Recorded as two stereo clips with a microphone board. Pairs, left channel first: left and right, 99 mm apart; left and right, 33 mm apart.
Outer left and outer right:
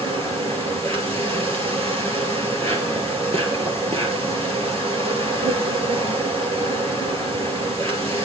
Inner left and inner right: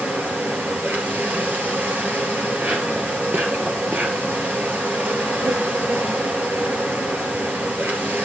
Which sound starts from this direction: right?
An insect, at 0.0 s.